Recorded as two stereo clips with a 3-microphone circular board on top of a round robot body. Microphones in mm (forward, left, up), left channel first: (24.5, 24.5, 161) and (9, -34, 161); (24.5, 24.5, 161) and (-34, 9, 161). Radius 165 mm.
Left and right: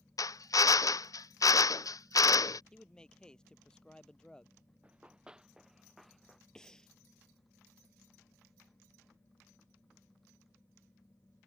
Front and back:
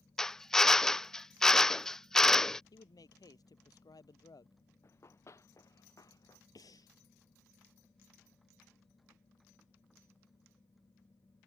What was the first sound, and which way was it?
A drill, 95° left.